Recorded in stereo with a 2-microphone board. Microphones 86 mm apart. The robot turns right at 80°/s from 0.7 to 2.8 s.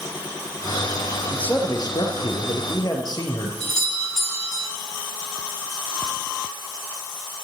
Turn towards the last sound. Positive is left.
turn(degrees=5)  # may be behind; listen again after turning